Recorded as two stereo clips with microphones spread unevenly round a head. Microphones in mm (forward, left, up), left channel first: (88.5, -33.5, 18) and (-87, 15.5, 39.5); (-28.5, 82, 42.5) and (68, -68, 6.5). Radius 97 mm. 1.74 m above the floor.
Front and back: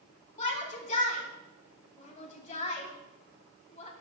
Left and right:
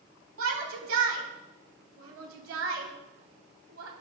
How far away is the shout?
About 3 m.